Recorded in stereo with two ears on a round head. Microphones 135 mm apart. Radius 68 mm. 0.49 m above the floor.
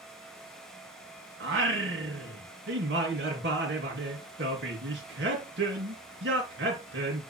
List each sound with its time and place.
1.4 s singing: 90° right, 3 m